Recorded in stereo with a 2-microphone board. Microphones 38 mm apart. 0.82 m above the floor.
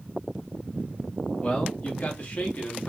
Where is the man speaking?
40° left (ahead or behind), 1.4 m; by 2.9 s 55° left (ahead or behind), 2 m.